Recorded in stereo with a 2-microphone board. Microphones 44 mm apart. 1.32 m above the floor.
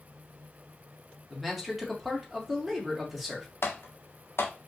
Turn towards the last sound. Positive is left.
turn(degrees=70)  # may be behind; listen again after turning